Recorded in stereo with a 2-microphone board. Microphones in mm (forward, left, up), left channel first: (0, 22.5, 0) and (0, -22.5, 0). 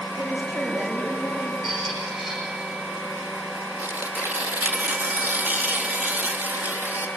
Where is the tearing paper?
45° right (ahead or behind), 2 m.